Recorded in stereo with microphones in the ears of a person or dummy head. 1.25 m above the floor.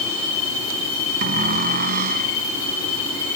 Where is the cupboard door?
55° right (ahead or behind).